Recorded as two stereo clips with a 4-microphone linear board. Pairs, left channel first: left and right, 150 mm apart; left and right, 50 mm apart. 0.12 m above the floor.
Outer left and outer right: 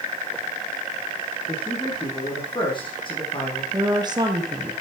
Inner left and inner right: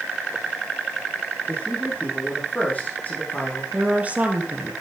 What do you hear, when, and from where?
1.5 s a man speaking: 35° left (ahead or behind), 6 m
3.7 s a woman speaking: 30° right (ahead or behind), 3.5 m